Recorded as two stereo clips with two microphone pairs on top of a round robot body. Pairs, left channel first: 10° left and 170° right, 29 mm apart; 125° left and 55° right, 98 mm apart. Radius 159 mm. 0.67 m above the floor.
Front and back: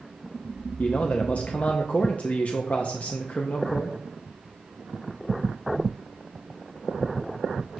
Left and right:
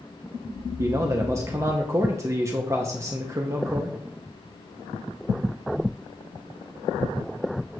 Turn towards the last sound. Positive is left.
turn(degrees=0)